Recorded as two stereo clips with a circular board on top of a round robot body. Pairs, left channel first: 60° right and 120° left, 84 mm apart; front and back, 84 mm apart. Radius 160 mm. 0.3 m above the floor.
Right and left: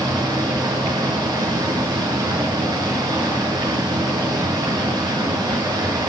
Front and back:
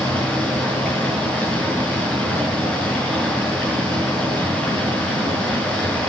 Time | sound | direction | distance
0.0 | running water | 80° left | 6 m